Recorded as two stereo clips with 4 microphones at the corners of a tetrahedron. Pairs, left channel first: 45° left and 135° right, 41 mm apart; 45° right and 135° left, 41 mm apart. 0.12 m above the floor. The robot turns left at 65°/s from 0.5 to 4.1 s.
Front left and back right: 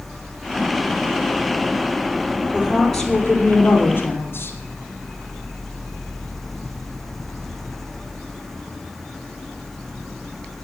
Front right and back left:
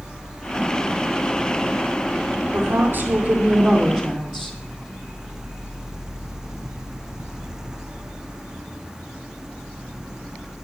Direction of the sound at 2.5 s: 160° left.